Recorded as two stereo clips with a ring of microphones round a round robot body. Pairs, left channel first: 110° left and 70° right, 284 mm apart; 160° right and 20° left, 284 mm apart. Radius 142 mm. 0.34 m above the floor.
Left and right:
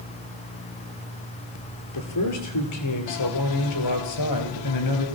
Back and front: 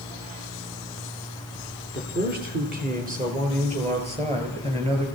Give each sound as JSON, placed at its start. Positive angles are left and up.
{"t": 1.9, "sound": "a man speaking", "azimuth_deg": 80, "distance_m": 6.5}